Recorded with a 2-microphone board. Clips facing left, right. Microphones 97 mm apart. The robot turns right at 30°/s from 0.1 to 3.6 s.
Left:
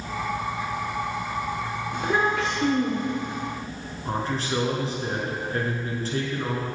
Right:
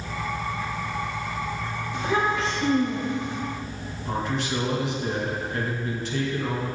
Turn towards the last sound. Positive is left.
turn(degrees=35)  # may be behind; listen again after turning